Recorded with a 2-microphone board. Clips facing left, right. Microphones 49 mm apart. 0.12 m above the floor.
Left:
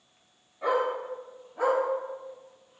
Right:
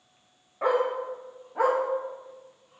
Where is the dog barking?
50° right (ahead or behind), 3.5 m; by 2.8 s 70° right (ahead or behind), 3.5 m.